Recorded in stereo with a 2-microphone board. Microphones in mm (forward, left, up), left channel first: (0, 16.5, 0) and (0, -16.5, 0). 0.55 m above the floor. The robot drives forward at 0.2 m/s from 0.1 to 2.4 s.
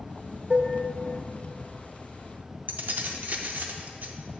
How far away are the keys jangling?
About 0.5 m.